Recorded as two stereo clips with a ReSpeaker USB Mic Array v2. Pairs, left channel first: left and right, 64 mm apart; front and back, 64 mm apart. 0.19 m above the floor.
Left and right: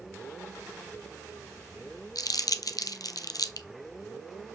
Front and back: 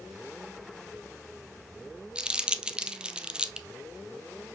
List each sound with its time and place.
2.1 s crumpling: 105° left, 0.7 m